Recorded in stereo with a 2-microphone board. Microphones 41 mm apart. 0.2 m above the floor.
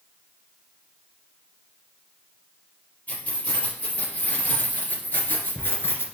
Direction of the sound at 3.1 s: 35° left (ahead or behind).